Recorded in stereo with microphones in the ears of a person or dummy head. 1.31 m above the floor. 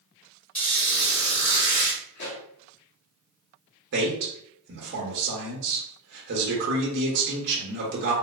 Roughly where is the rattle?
I don't hear a rattle.